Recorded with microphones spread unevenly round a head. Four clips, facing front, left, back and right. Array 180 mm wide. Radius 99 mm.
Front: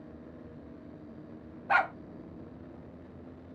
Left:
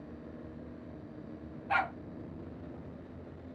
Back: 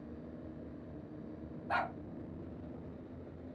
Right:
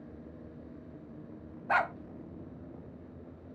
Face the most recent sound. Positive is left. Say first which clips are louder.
# right 2 dB, front 8 dB
turn(degrees=-40)